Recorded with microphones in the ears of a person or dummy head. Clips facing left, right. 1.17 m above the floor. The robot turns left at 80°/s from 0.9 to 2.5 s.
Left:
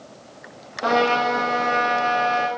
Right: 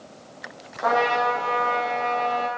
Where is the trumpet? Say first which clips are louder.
Left 2 dB; 145° left, 1.9 m; by 2.5 s 15° left, 1.9 m.